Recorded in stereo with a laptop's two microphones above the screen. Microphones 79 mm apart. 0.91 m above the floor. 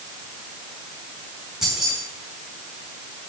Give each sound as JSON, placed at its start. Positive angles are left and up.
{"t": 1.6, "sound": "keys jangling", "side_deg": -5, "distance_m": 5.5}